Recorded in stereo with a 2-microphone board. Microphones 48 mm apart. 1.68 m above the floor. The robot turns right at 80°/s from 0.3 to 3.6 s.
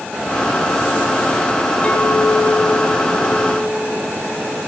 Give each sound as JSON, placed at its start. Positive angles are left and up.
{"t": 1.8, "sound": "a clink", "azimuth_deg": 15, "distance_m": 5.0}